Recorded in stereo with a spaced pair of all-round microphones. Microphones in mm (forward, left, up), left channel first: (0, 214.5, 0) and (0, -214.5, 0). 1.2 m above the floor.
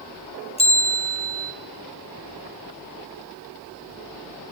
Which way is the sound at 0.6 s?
15° left (ahead or behind).